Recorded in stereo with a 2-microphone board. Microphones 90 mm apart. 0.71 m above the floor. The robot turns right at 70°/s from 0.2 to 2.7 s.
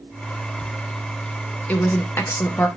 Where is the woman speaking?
20° left (ahead or behind), 0.5 m; by 2.7 s 25° left (ahead or behind), 0.5 m.